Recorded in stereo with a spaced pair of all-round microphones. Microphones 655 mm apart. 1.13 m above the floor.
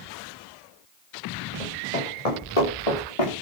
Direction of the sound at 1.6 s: 60° left (ahead or behind).